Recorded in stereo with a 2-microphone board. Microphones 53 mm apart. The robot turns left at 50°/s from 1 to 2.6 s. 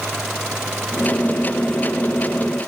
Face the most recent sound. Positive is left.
No sound to turn to.